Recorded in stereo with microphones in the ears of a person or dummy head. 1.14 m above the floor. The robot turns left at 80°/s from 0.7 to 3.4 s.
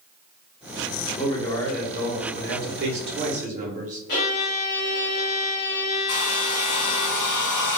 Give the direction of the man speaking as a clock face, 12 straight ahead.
10 o'clock.